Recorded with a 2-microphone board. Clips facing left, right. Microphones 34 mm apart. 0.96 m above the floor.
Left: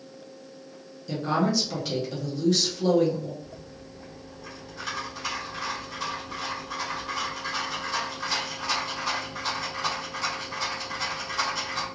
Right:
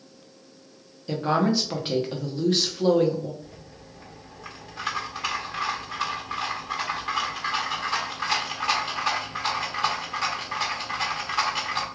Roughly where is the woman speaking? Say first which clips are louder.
Right 2 dB; right.